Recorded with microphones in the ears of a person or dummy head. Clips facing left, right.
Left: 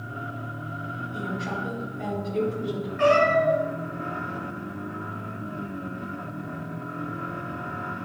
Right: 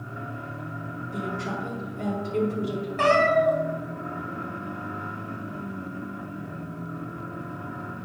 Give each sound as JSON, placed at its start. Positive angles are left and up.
{"t": 1.1, "sound": "a woman speaking", "side_deg": -35, "distance_m": 4.0}
{"t": 3.0, "sound": "a cat meowing", "side_deg": -70, "distance_m": 2.5}